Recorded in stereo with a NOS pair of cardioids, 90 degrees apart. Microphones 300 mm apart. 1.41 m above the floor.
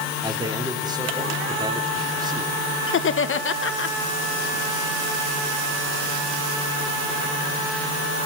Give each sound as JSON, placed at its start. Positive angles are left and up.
{"t": 0.2, "sound": "a man speaking", "azimuth_deg": -15, "distance_m": 4.0}
{"t": 2.9, "sound": "laughter", "azimuth_deg": 40, "distance_m": 1.3}